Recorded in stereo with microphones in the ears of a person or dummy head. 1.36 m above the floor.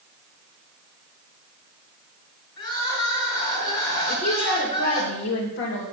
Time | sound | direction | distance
2.6 | crying | 35° left (ahead or behind) | 4.5 m
4.1 | a woman speaking | 65° left (ahead or behind) | 2 m